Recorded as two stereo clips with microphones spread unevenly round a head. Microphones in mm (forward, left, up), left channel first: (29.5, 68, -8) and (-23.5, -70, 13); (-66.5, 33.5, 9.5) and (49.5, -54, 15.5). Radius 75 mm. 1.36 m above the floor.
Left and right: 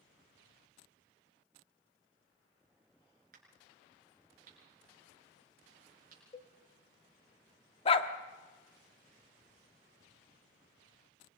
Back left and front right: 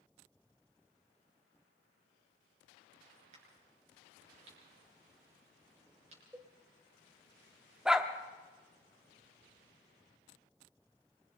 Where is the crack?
80° right, 6.5 m.